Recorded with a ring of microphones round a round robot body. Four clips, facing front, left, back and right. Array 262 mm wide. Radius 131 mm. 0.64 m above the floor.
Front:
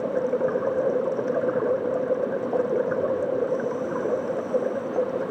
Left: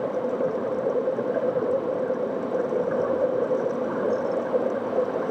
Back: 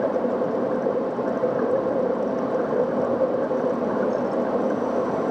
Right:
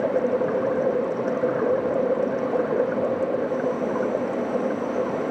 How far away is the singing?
No singing in this recording.